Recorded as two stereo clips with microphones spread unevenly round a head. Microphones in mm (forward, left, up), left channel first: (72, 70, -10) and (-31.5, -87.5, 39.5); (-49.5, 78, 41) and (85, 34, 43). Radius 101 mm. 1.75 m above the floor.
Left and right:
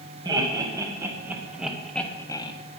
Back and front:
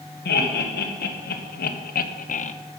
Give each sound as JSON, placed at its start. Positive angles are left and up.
{"t": 0.2, "sound": "laughter", "azimuth_deg": 165, "distance_m": 2.5}